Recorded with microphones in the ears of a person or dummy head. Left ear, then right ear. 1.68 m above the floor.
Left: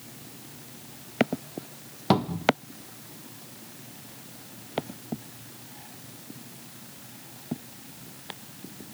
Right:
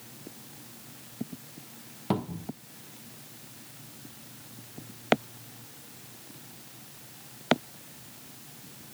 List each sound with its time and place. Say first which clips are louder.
2.1 s a cupboard door: left 10 dB; 35° left (ahead or behind), 1.2 m